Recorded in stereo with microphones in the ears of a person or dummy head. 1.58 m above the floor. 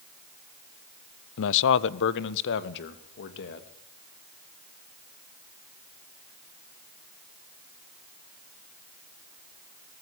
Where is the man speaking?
70° left (ahead or behind), 0.8 m; by 3.7 s 60° left (ahead or behind), 3 m.